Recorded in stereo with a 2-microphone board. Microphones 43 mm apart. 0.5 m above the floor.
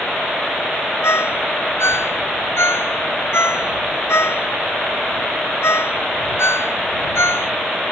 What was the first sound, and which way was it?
A ringtone, 85° left.